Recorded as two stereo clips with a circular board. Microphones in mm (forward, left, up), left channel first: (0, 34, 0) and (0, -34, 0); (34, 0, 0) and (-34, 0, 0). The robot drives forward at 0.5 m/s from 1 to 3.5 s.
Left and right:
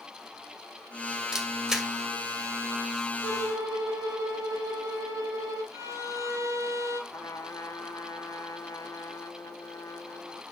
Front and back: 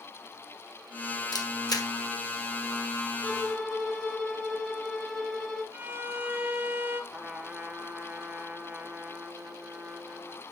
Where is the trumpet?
110° left, 1.3 m.